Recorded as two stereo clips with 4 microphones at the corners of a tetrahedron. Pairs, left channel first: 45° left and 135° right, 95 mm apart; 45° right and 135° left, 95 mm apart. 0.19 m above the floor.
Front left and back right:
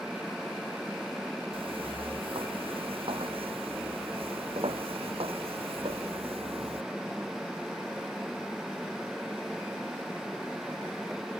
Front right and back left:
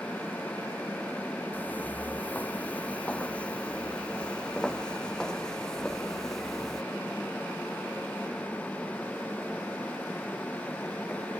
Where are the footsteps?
115° right; by 6.8 s 130° right.